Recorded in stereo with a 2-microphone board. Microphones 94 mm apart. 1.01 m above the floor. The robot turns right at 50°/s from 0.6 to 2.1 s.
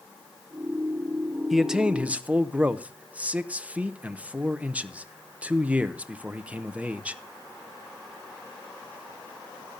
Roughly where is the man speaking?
Centre.